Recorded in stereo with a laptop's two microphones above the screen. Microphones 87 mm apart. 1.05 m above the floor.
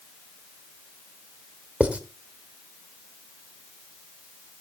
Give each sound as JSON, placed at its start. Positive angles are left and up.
{"t": 1.8, "sound": "writing", "side_deg": -15, "distance_m": 1.6}